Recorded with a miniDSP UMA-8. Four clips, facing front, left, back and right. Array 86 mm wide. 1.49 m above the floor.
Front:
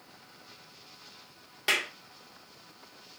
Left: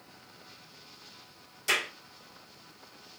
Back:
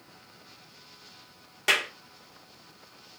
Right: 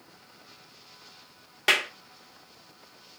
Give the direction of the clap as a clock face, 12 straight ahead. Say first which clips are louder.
Right 5 dB, back 4 dB; 3 o'clock.